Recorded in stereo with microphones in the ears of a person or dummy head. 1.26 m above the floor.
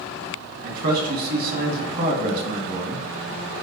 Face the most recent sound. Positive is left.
turn(degrees=-55)  # may be behind; listen again after turning